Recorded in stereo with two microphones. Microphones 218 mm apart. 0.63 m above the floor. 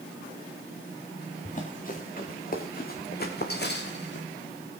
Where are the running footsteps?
35° left (ahead or behind), 4 m; by 4.3 s 55° left (ahead or behind), 2.5 m.